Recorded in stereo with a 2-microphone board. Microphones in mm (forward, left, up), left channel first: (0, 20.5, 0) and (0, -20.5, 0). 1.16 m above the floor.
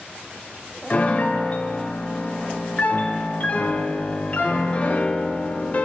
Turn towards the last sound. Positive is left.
turn(degrees=35)  # may be behind; listen again after turning